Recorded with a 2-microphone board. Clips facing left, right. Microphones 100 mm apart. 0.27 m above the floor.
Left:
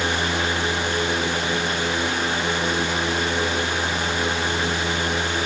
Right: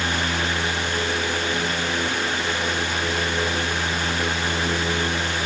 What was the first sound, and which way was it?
Only background noise.